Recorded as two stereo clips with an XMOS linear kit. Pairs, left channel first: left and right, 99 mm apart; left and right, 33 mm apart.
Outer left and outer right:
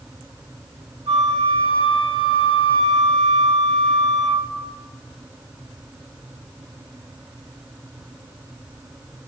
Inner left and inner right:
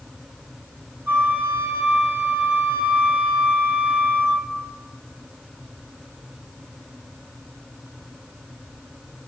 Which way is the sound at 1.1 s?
85° right.